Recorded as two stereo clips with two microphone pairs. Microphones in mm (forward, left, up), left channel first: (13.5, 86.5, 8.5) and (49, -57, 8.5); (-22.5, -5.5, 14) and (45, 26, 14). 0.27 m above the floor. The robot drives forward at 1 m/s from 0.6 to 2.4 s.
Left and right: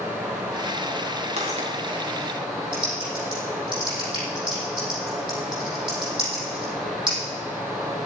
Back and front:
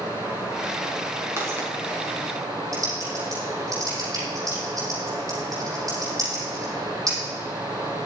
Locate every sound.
0.0 s running water: 10° left, 5.5 m
1.4 s footsteps: 30° right, 6 m; by 1.7 s 35° right, 5.5 m
2.7 s typing on a keyboard: 20° right, 6 m